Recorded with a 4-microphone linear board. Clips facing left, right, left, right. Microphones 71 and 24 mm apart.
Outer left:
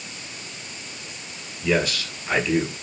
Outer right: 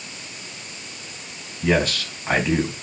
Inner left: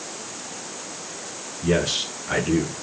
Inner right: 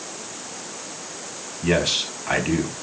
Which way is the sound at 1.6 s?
40° right (ahead or behind).